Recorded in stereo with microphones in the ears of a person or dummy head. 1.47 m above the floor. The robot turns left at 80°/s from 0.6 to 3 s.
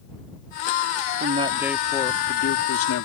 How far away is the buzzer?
No buzzer in this recording.